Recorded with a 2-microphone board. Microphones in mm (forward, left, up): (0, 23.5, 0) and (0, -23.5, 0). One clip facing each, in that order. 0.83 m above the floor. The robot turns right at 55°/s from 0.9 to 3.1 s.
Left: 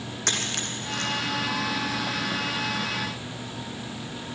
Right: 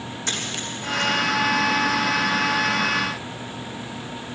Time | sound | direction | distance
0.3 | a dropped coin | 55° left (ahead or behind) | 3 m